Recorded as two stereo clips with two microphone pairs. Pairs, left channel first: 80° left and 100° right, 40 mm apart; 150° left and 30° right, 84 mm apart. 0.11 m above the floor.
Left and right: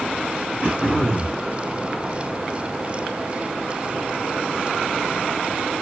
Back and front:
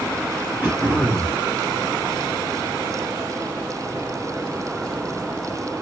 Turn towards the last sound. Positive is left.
turn(degrees=-80)